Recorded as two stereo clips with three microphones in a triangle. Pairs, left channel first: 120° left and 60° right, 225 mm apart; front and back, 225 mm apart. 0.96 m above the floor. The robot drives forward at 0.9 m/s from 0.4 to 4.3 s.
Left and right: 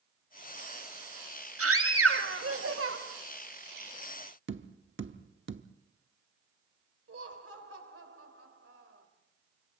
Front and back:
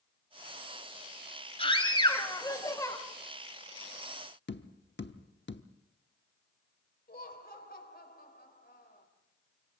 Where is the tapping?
35° right, 0.9 m.